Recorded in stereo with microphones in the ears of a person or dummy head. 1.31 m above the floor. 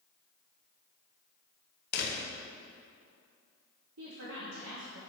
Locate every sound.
1.9 s a door slam: 55° left (ahead or behind), 0.9 m
4.0 s a woman speaking: 75° right (ahead or behind), 1.1 m